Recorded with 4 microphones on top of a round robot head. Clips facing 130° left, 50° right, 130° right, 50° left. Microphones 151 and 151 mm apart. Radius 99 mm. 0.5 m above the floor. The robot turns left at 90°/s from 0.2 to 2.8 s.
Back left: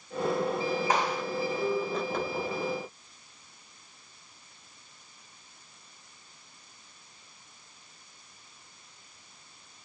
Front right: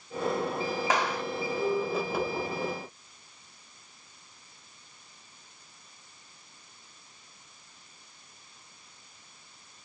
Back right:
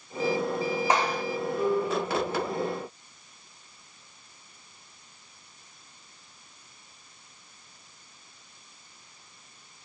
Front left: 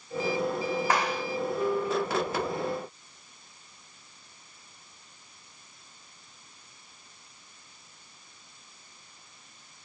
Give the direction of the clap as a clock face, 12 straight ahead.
2 o'clock.